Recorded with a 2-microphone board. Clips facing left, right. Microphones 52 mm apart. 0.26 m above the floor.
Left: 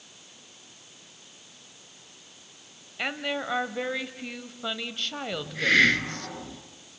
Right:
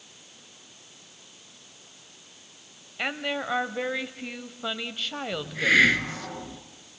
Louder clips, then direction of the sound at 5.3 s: Right 1 dB; 5° right (ahead or behind).